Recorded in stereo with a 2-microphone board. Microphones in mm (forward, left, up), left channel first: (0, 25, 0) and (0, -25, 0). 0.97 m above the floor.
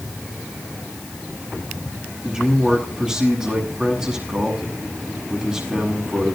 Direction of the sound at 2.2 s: 15° right (ahead or behind).